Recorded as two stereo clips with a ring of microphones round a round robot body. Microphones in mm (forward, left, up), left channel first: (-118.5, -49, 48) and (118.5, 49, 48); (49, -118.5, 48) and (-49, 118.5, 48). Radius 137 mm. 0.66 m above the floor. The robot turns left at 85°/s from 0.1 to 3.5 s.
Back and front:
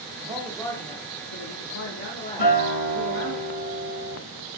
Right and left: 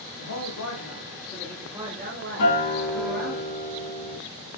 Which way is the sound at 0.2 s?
40° right.